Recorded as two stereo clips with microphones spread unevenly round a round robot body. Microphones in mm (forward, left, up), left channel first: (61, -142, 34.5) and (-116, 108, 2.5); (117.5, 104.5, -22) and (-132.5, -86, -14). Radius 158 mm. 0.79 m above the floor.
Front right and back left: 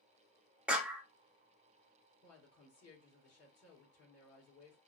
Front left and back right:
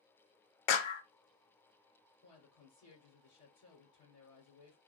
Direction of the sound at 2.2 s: Straight ahead.